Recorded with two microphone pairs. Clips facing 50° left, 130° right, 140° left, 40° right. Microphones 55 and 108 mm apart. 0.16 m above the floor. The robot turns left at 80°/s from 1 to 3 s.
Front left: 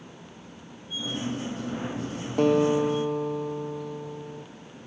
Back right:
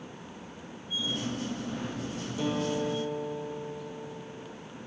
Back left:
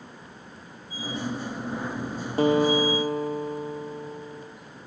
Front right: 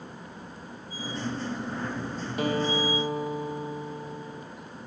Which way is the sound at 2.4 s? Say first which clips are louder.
Front left 10 dB, back left 7 dB; 85° left.